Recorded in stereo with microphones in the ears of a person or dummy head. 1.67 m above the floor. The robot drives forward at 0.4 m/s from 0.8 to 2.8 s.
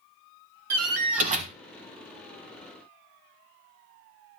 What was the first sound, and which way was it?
A door slam, 40° right (ahead or behind).